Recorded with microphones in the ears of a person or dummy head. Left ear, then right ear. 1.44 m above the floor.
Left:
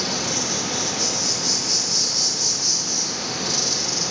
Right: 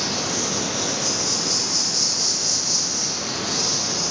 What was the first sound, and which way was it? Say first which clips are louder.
An insect: even; 60° left (ahead or behind).